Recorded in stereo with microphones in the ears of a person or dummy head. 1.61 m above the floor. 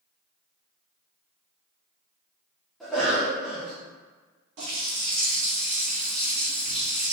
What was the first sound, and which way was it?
A cough, 5° left (ahead or behind).